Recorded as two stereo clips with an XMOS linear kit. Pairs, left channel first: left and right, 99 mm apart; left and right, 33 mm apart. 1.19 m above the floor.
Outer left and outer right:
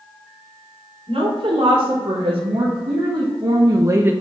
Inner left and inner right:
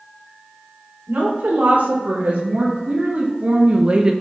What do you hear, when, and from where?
1.1 s a woman speaking: 70° right (ahead or behind), 3 m; by 4.1 s 20° right (ahead or behind), 0.7 m